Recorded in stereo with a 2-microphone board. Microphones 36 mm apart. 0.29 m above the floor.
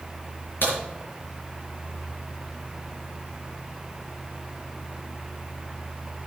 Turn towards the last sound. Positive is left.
turn(degrees=75)  # may be behind; listen again after turning